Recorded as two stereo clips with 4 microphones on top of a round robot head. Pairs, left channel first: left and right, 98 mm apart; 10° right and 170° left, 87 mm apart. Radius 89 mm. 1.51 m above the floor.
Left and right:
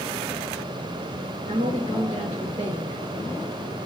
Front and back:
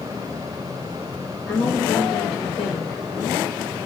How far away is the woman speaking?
About 1.0 m.